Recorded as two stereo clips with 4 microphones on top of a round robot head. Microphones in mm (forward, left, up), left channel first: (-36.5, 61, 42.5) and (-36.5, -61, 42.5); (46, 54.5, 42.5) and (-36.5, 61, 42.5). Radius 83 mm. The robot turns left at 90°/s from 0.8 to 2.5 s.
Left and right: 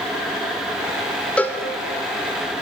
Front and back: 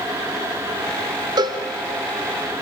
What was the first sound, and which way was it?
A cowbell, 170° left.